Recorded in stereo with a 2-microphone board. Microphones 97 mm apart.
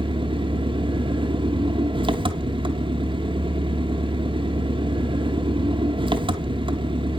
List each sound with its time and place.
0.0 s an engine running: 60° right (ahead or behind), 0.8 m